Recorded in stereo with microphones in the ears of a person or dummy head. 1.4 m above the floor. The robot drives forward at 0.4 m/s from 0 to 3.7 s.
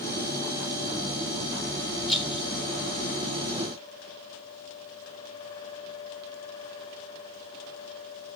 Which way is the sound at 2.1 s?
Centre (ahead or behind).